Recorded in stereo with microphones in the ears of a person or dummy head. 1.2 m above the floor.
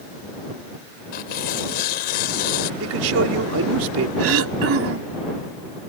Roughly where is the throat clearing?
Right.